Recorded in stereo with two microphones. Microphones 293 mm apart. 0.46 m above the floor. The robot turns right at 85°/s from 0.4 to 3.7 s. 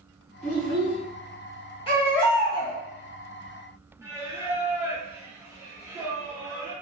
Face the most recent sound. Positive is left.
turn(degrees=-10)  # may be behind; listen again after turning